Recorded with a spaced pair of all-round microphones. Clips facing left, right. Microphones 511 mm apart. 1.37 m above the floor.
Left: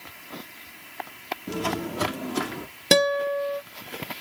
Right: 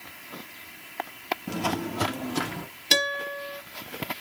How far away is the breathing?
I don't hear breathing.